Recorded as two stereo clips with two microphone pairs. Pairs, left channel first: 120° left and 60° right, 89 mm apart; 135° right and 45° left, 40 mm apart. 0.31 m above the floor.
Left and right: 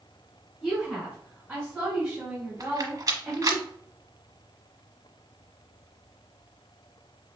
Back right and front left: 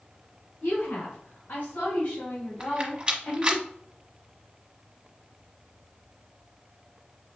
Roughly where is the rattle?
Ahead.